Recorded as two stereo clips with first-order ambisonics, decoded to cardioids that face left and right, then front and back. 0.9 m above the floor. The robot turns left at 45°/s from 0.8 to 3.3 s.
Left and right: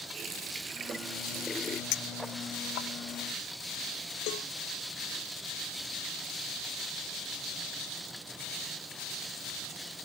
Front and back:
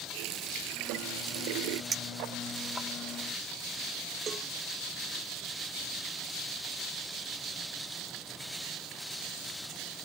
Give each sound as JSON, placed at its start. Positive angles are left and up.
{"t": 0.1, "sound": "a running tap", "azimuth_deg": -155}
{"t": 1.9, "sound": "a clink", "azimuth_deg": 115}
{"t": 4.3, "sound": "a cowbell", "azimuth_deg": 110}